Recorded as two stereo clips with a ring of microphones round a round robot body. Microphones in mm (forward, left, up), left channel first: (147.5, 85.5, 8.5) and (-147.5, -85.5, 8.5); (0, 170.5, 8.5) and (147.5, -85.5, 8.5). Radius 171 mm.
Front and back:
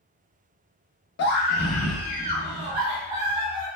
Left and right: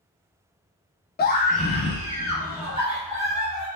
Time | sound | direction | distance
1.2 | a scream | 75° left | 0.6 m